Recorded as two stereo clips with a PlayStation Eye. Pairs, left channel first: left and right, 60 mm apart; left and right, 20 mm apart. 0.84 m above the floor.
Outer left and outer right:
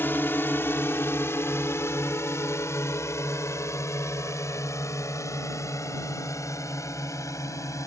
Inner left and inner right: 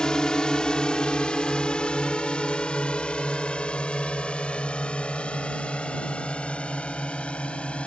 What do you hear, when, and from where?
0.0 s a drone: 40° left (ahead or behind); by 7.9 s 75° left (ahead or behind)